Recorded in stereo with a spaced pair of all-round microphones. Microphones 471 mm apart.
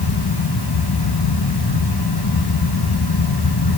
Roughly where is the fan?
Left.